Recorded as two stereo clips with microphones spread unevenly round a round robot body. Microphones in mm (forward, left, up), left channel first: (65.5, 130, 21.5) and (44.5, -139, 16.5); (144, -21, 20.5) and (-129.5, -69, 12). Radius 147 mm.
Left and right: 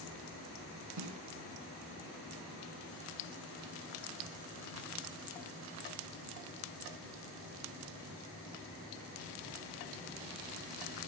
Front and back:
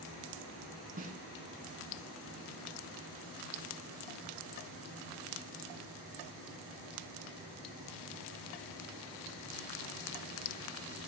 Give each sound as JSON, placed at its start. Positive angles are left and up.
{"t": 1.0, "sound": "a snare drum", "azimuth_deg": -110, "distance_m": 3.5}